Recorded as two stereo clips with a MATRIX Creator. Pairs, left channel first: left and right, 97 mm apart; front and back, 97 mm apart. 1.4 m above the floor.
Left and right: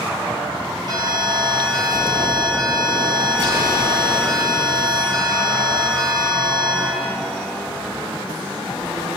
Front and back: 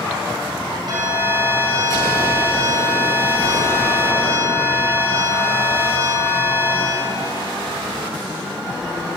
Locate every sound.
0.9 s an alarm: 135° right, 6.5 m